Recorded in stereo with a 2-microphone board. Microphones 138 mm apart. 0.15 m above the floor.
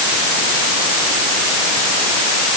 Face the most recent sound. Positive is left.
No sound to turn to.